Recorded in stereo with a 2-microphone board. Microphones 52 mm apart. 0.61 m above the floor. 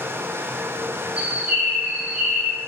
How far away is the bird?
About 0.6 m.